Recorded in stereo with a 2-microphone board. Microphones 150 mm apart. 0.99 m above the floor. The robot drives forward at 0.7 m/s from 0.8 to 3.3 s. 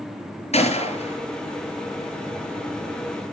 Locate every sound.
0.5 s a gunshot: 45° left (ahead or behind), 5.5 m